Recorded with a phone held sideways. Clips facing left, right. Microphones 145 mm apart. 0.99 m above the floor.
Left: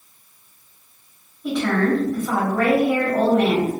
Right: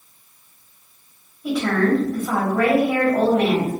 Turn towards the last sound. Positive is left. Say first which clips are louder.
# right 1 dB
turn(degrees=-5)  # may be behind; listen again after turning